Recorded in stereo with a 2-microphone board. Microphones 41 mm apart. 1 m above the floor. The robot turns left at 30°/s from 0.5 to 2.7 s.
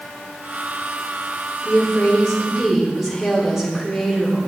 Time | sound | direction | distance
1.6 | a woman speaking | 30° left | 3 m